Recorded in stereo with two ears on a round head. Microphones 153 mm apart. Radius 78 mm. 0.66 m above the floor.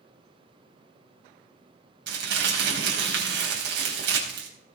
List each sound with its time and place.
2.1 s crumpling: 75° right (ahead or behind), 4.5 m